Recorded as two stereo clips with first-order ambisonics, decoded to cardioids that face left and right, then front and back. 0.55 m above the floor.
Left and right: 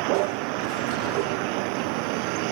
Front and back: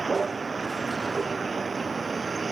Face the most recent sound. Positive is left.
turn(degrees=-105)